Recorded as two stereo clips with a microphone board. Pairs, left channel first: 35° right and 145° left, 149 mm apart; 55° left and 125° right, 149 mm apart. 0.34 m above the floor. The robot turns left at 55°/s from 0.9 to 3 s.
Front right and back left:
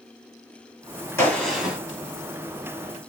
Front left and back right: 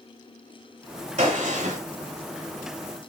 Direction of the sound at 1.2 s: 105° right.